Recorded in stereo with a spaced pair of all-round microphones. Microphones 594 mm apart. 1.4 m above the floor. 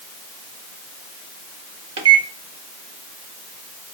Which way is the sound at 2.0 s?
45° right (ahead or behind).